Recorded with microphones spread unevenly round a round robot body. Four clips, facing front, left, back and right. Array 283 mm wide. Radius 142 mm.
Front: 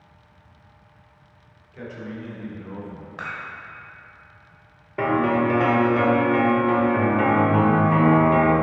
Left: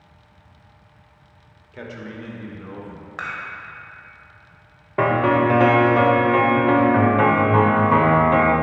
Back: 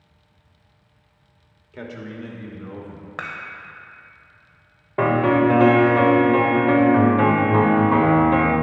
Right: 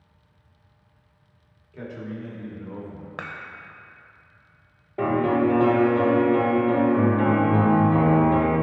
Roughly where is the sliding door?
No sliding door in this recording.